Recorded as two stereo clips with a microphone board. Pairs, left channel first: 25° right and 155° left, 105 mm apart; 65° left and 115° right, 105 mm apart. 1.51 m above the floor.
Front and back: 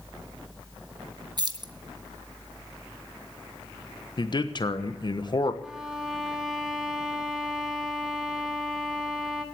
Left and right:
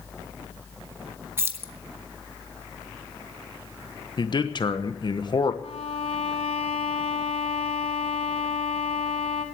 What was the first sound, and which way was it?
Keys jangling, 175° right.